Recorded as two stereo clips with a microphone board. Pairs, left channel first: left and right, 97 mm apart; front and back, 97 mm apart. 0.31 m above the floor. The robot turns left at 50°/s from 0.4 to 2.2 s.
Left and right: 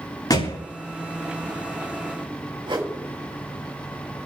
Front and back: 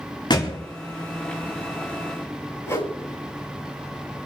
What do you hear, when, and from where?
0.3 s a thud: 40° left, 6 m; by 0.6 s 30° left, 6 m
2.6 s a whoosh: 60° right, 5.5 m